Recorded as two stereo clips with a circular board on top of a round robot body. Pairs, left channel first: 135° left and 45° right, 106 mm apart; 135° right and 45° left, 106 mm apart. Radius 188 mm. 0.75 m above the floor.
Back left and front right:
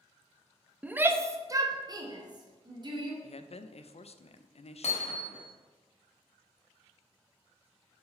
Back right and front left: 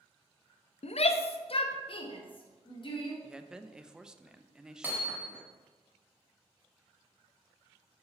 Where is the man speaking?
125° left, 0.6 m.